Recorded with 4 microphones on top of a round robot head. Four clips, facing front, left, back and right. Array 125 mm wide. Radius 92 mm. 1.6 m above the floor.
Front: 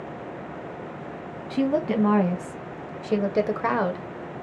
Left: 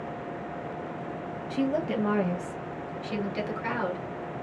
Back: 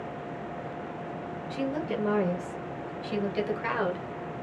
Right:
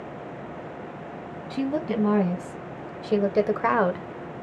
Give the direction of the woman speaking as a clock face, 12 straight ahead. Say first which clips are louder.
Right 1 dB, front 8 dB; 1 o'clock.